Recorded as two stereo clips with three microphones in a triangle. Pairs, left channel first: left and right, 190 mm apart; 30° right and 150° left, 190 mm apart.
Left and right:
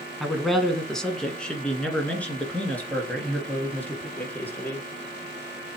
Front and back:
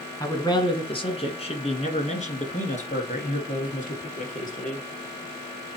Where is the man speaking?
5° right, 1.3 m; by 4.9 s 10° left, 3.5 m.